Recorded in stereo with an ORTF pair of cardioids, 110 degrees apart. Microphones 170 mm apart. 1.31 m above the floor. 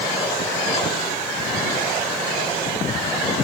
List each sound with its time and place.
Only background noise.